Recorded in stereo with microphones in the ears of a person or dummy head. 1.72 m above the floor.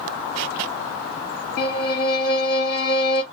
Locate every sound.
1.6 s a violin: 55° left (ahead or behind), 1.2 m